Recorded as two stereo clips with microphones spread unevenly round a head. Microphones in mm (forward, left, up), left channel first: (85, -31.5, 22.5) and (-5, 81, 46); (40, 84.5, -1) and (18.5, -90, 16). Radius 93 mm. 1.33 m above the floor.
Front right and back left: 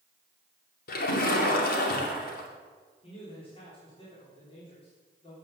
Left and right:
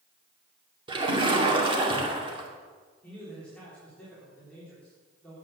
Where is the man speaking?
Straight ahead, 4 m.